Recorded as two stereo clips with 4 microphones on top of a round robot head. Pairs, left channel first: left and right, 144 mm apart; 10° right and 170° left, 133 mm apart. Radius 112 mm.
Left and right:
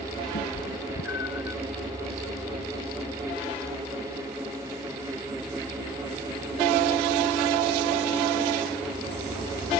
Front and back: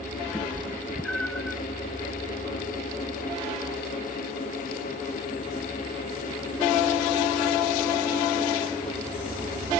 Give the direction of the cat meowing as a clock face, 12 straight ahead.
10 o'clock.